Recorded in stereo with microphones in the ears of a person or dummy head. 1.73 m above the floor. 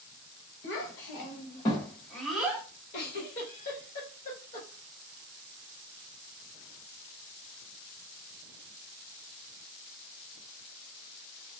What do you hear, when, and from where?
0.6 s a child speaking: 50° left (ahead or behind), 1.2 m; by 2.6 s 15° right (ahead or behind), 0.9 m
2.9 s a giggle: 30° left (ahead or behind), 1.3 m